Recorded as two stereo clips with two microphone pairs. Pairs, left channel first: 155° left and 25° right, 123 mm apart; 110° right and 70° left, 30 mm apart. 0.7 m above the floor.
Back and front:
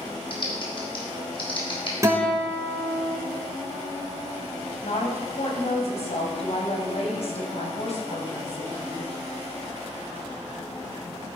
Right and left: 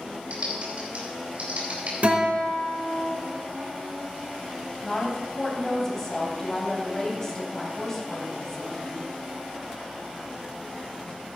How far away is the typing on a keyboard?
About 3.5 m.